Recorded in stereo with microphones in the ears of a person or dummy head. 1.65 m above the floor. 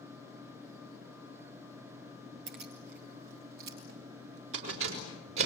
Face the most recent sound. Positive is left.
turn(degrees=-70)  # may be behind; listen again after turning